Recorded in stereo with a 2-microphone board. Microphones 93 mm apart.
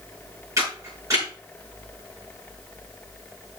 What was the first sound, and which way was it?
A camera shutter, 35° right (ahead or behind).